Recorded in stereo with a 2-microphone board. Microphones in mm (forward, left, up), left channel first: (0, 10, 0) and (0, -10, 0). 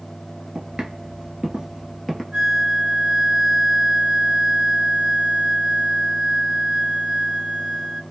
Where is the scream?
No scream in this recording.